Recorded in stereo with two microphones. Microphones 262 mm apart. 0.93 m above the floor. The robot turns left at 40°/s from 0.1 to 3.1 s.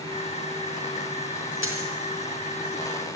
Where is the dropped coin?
50° left (ahead or behind), 4 m; by 1.9 s 60° left (ahead or behind), 4 m.